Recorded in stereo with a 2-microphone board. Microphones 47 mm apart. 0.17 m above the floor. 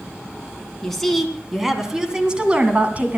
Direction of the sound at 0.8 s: 5° left (ahead or behind).